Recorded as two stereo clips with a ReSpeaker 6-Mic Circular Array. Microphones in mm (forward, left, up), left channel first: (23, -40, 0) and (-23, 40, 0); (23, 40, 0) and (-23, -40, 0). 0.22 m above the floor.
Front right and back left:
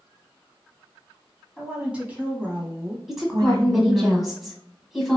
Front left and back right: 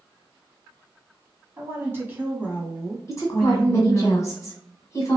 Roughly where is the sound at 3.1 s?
Ahead left.